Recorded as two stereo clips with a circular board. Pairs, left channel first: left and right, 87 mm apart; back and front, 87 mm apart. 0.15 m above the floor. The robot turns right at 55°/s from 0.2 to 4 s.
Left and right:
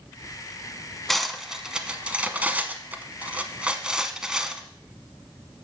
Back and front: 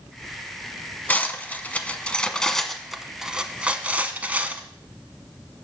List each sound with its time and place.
1.1 s cutlery clinking: 175° left, 0.7 m; by 4.6 s 25° right, 0.7 m